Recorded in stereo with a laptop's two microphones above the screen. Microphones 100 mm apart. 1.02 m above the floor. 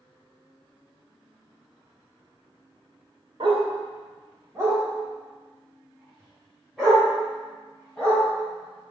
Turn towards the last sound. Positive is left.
turn(degrees=10)  # may be behind; listen again after turning